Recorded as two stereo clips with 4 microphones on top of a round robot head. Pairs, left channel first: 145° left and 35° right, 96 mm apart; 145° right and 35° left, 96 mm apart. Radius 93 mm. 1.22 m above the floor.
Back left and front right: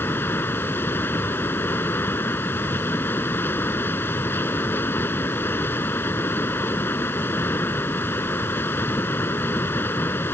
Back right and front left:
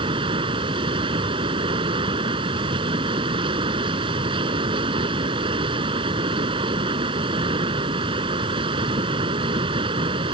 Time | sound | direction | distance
0.0 | running water | 75° left | ?